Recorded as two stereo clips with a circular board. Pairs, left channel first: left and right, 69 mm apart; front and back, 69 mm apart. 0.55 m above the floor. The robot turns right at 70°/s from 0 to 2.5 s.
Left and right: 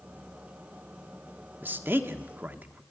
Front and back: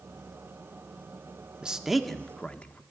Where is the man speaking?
115° right, 1.3 m; by 2.8 s 55° right, 1.3 m.